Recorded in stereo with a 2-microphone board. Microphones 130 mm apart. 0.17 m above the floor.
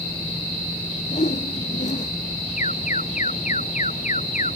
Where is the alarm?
70° left (ahead or behind).